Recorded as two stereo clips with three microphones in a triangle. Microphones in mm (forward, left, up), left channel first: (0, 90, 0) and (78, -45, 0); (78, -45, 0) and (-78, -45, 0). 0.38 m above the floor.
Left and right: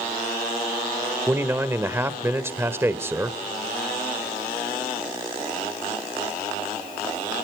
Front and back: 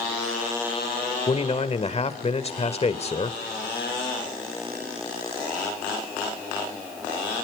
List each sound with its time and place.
1.3 s a man speaking: 10° left, 1.2 m